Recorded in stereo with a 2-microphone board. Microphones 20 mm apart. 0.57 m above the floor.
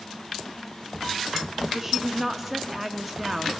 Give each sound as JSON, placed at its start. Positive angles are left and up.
{"t": 1.7, "sound": "a woman speaking", "side_deg": -15, "distance_m": 0.6}